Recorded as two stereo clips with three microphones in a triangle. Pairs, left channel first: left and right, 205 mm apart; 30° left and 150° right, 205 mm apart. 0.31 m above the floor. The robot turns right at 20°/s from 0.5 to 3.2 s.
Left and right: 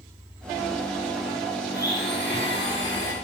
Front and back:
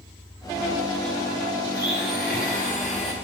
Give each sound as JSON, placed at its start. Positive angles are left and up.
{"t": 1.7, "sound": "a blender", "azimuth_deg": 55, "distance_m": 3.0}